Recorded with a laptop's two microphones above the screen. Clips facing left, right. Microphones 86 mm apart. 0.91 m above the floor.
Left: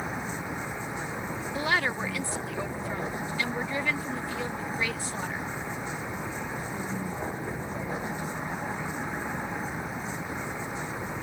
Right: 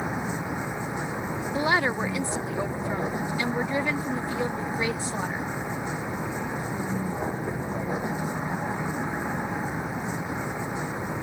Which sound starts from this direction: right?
A woman speaking, at 1.5 s.